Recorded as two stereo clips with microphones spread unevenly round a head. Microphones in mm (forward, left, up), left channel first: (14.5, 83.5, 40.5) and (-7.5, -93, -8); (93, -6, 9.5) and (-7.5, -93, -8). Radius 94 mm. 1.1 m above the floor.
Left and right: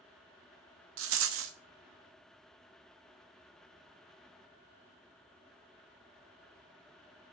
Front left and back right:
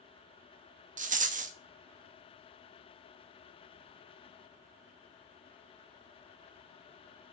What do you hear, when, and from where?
1.0 s a rattle: 110° right, 1.0 m